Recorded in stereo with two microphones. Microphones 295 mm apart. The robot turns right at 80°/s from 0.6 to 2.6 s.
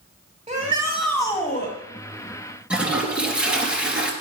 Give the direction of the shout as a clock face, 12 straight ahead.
1 o'clock.